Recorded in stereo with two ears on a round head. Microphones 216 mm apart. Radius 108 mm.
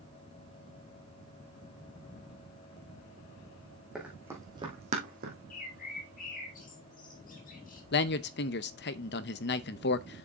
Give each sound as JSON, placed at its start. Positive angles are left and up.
{"t": 4.0, "sound": "running footsteps", "side_deg": -5, "distance_m": 3.0}
{"t": 5.5, "sound": "a bird", "side_deg": 35, "distance_m": 2.0}
{"t": 7.9, "sound": "a man speaking", "side_deg": 45, "distance_m": 0.7}